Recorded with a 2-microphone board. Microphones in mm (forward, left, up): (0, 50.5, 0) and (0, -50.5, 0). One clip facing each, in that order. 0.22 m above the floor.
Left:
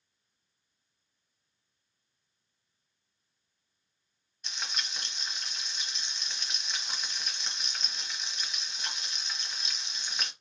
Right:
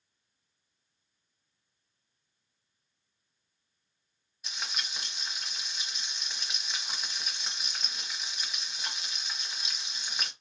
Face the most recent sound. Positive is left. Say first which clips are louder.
# even
turn(degrees=-5)  # may be behind; listen again after turning